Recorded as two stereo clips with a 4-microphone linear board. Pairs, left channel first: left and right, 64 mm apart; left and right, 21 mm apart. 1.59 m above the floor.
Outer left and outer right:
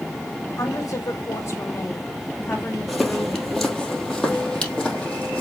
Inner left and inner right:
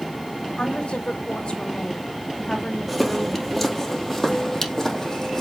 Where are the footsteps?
5° right (ahead or behind), 2.5 m; by 5.4 s 15° left (ahead or behind), 3.5 m.